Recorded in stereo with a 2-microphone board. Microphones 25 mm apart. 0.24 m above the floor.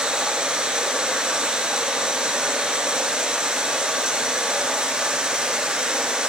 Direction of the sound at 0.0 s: 35° right (ahead or behind).